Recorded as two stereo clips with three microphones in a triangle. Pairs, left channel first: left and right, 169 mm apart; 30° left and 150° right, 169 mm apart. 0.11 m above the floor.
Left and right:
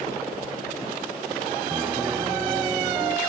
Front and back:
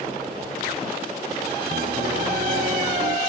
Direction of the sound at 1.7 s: 160° right.